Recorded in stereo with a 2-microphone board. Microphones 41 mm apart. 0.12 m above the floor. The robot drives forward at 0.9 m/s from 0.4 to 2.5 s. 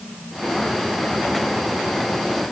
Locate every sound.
Only background noise.